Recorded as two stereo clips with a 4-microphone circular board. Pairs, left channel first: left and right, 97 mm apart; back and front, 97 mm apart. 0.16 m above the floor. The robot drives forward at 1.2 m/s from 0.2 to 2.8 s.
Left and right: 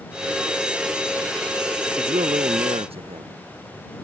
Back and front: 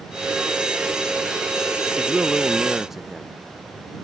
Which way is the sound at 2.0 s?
80° right.